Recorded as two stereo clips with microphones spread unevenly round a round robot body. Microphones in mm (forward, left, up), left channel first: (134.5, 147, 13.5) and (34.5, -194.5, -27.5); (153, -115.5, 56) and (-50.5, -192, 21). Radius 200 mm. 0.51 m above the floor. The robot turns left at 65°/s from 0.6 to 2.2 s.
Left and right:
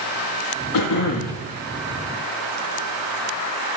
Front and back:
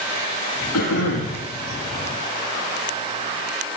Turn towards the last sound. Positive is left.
turn(degrees=-45)